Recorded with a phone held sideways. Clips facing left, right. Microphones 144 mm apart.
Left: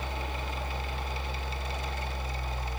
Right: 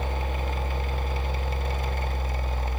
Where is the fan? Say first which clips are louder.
Right 5 dB; 55° right (ahead or behind), 0.8 m.